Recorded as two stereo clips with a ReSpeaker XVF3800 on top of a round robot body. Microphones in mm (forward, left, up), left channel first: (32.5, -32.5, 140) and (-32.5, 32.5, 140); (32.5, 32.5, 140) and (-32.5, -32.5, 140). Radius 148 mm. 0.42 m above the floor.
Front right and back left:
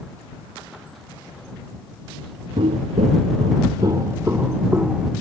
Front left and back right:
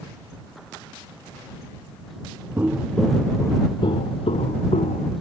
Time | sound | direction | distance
2.6 | footsteps | 155° left | ?